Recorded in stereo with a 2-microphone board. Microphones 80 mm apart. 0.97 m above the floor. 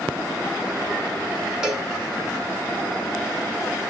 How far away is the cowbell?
About 2.5 m.